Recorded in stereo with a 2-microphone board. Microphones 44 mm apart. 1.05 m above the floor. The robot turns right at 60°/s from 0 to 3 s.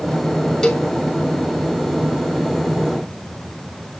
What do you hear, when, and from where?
0.6 s a cowbell: 20° left (ahead or behind), 2 m; by 0.9 s 35° left (ahead or behind), 2 m